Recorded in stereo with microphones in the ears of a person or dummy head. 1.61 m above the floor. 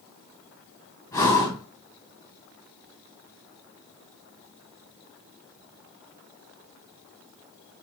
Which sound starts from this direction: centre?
Breathing, at 1.1 s.